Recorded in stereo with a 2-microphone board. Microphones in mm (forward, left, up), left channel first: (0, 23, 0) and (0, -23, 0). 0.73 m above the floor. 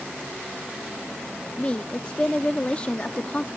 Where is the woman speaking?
25° left (ahead or behind).